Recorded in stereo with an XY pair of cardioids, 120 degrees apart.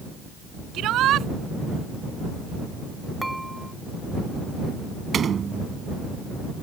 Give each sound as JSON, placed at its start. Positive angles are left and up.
{"t": 0.7, "sound": "a shout", "azimuth_deg": -65}
{"t": 3.2, "sound": "dishes clattering", "azimuth_deg": -10}
{"t": 5.1, "sound": "a door slam", "azimuth_deg": -40}